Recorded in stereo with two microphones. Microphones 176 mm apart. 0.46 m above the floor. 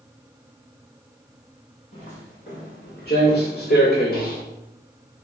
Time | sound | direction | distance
1.9 | footsteps | 40° left (ahead or behind) | 1.8 m